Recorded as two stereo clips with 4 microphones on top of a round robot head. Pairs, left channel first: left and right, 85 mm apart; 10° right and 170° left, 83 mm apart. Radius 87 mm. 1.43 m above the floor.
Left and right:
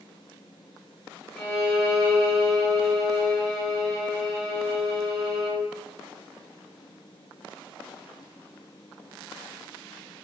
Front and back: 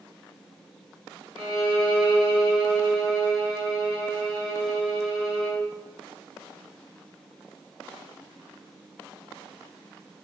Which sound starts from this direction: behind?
A violin, at 1.4 s.